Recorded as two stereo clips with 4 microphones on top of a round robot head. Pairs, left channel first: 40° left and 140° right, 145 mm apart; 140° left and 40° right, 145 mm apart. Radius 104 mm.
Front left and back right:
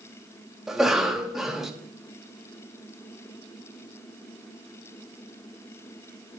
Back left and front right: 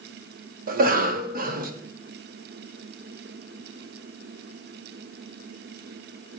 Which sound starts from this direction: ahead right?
A cough, at 0.7 s.